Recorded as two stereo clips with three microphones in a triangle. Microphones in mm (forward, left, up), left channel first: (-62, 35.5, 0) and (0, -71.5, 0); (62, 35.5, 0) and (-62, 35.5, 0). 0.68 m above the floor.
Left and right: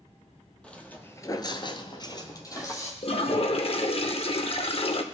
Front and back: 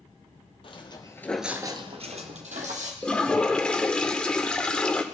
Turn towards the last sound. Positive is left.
turn(degrees=85)